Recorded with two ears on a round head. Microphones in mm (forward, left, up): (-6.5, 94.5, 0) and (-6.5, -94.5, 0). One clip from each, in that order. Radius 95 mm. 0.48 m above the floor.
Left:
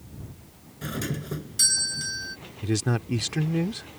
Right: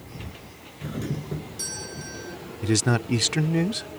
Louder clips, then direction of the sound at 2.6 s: Right 4 dB; 20° right (ahead or behind).